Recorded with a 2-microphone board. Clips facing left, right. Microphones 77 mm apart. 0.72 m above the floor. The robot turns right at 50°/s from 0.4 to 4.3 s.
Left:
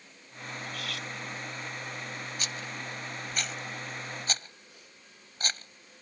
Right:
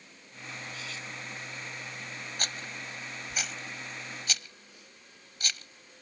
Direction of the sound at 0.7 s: 60° left (ahead or behind).